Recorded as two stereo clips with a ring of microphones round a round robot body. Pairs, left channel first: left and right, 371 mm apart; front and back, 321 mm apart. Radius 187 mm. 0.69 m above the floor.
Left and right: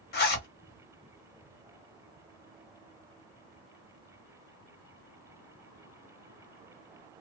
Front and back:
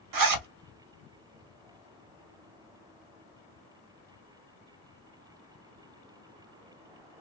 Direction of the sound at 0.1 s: 155° left.